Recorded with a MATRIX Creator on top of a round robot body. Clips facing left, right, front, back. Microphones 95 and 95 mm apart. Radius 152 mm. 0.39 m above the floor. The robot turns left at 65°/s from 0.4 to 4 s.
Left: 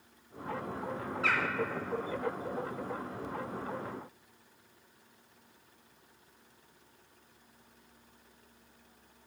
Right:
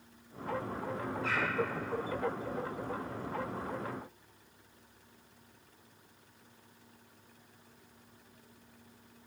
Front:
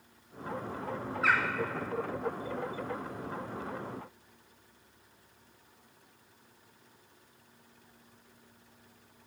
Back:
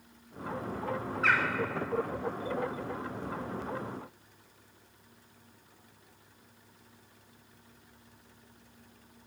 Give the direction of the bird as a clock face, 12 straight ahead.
9 o'clock.